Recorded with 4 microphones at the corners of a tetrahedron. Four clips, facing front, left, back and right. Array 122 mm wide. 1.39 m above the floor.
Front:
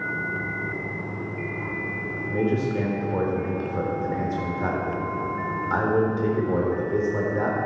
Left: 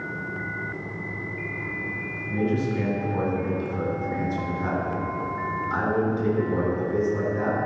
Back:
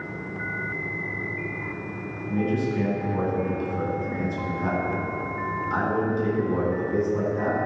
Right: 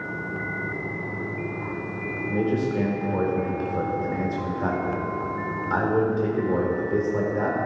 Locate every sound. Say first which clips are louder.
2.3 s a man speaking: right 1 dB, front 1 dB; 40° right, 4 m